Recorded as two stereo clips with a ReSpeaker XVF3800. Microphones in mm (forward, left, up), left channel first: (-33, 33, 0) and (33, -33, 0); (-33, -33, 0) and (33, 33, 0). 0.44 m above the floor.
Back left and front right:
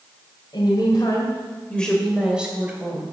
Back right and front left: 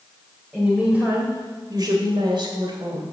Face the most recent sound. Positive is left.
turn(degrees=20)